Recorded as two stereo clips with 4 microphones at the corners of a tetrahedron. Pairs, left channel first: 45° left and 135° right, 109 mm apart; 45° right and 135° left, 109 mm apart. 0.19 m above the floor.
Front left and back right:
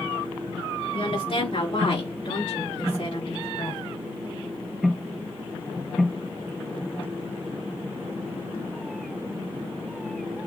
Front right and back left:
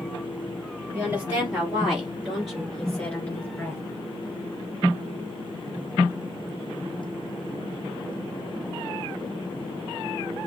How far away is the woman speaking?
About 3.5 m.